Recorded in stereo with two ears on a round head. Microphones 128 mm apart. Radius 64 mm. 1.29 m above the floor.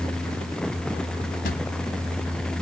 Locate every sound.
1.4 s a drawer: 75° left (ahead or behind)